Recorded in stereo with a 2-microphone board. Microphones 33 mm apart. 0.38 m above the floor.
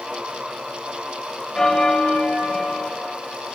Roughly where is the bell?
Left.